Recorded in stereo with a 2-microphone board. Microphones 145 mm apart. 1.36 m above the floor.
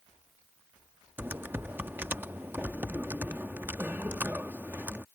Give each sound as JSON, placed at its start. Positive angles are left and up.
{"t": 1.2, "sound": "typing on a keyboard", "side_deg": -15}